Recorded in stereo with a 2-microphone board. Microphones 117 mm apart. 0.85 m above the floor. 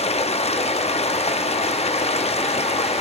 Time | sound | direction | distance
0.0 | running water | 70° left (ahead or behind) | 0.9 m